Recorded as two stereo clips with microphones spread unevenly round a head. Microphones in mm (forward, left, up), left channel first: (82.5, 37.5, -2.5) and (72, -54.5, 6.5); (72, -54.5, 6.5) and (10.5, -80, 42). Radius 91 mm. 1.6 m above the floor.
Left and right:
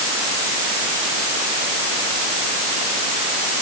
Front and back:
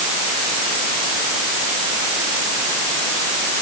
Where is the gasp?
No gasp in this recording.